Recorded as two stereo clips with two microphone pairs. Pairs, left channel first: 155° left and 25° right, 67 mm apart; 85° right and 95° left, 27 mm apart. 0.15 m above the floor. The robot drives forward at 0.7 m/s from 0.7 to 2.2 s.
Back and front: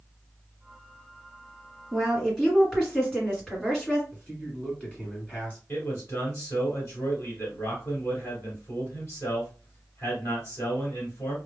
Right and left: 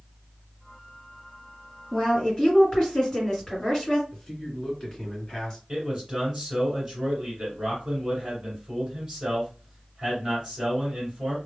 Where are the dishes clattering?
I don't hear dishes clattering.